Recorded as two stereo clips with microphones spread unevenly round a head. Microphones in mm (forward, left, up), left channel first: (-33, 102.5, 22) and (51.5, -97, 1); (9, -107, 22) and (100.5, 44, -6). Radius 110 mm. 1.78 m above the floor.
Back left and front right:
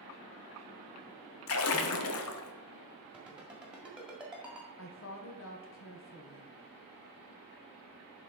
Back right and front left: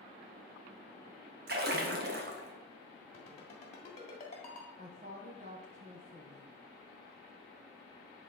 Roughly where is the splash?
Left.